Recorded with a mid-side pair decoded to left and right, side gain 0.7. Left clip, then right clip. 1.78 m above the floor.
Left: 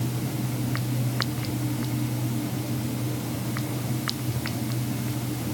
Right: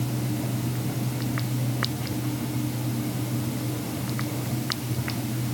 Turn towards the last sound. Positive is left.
No sound to turn to.